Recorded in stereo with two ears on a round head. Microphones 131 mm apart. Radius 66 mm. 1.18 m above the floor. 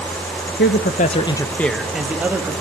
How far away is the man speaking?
About 1.1 m.